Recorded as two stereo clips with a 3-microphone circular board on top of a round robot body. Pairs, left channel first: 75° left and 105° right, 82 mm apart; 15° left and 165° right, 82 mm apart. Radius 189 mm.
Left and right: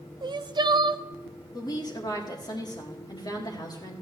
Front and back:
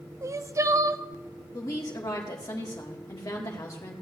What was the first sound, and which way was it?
Crying, 120° right.